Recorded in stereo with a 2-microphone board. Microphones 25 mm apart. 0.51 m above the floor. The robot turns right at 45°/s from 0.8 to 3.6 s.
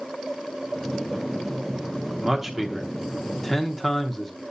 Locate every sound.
2.2 s a man speaking: 15° right (ahead or behind), 0.9 m; by 4.4 s 10° left (ahead or behind), 0.9 m